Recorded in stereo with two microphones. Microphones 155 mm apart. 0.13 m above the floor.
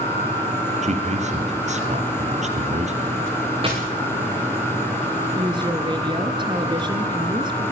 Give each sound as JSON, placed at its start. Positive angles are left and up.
{"t": 0.8, "sound": "a man speaking", "side_deg": -50, "distance_m": 3.0}
{"t": 3.6, "sound": "a dropped coin", "side_deg": -35, "distance_m": 5.5}
{"t": 5.3, "sound": "a woman speaking", "side_deg": -30, "distance_m": 2.0}